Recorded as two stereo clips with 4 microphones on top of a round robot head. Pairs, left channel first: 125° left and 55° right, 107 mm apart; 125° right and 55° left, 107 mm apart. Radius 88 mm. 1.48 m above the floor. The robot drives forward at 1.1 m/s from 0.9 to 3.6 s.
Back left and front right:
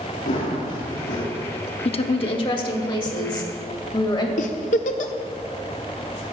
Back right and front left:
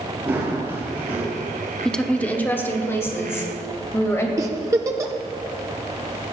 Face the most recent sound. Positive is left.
turn(degrees=120)